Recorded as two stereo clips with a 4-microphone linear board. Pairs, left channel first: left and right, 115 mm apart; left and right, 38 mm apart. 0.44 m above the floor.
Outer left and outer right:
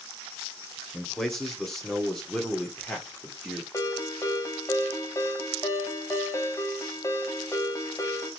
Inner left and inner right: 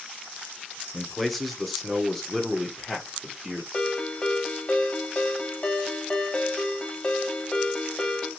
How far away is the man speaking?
About 1.2 m.